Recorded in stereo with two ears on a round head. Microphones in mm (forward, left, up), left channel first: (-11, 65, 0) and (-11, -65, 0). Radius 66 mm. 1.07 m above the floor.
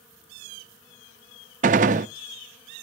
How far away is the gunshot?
About 0.5 m.